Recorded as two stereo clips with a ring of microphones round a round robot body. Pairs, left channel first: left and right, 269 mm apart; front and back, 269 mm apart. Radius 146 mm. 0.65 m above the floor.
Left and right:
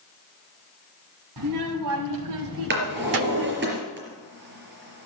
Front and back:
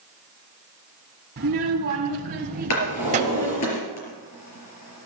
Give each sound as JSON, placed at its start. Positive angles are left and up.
{"t": 1.4, "sound": "a child speaking", "azimuth_deg": -120, "distance_m": 2.5}
{"t": 2.7, "sound": "a drawer", "azimuth_deg": -40, "distance_m": 5.0}